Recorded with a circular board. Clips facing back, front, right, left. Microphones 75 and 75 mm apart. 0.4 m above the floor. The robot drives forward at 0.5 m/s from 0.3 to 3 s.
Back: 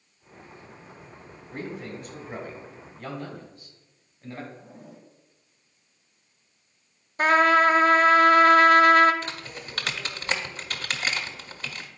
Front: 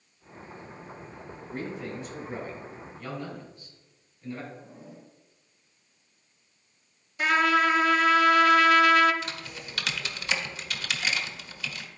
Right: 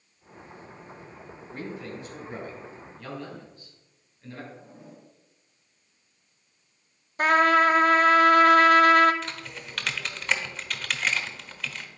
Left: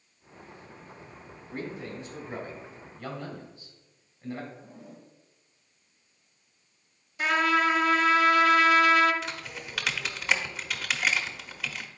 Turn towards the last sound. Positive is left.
turn(degrees=170)